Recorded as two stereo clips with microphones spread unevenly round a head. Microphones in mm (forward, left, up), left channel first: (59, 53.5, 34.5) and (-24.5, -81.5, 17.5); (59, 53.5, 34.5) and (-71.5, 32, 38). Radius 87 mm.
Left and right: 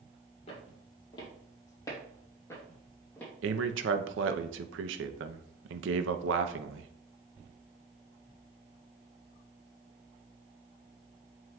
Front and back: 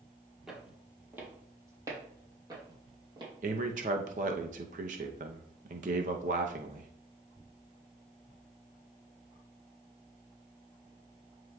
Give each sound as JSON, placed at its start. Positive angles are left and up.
{"t": 0.5, "sound": "footsteps", "azimuth_deg": 105, "distance_m": 2.0}
{"t": 3.4, "sound": "a man speaking", "azimuth_deg": -125, "distance_m": 0.8}